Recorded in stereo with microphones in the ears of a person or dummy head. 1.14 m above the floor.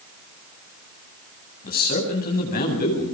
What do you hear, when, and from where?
1.6 s a man speaking: 55° left (ahead or behind), 8.5 m